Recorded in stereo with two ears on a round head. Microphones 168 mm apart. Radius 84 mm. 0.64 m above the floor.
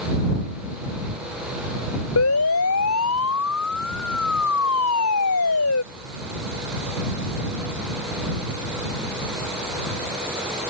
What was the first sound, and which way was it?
A siren, 90° left.